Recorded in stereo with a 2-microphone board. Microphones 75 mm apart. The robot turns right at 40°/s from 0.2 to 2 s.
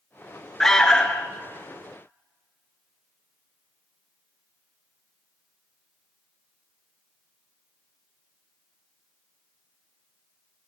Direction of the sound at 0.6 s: 5° left (ahead or behind).